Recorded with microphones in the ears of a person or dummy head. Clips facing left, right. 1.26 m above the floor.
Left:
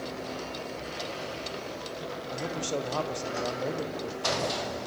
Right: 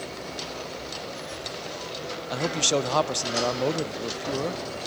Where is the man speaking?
80° right, 0.8 m.